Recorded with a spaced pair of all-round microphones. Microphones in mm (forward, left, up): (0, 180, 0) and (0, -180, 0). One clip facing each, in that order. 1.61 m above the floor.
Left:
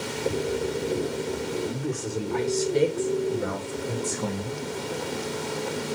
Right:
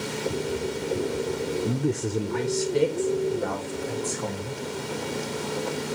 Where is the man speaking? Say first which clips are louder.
Right 4 dB; 55° right (ahead or behind), 0.6 m; by 4.7 s 30° left (ahead or behind), 1.5 m.